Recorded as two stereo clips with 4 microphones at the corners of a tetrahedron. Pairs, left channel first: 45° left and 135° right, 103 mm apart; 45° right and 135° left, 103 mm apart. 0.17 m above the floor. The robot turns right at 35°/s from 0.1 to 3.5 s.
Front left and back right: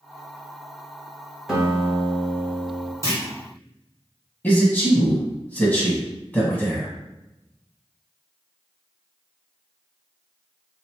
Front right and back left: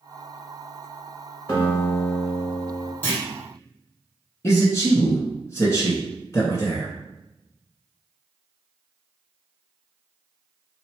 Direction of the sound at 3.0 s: 100° right.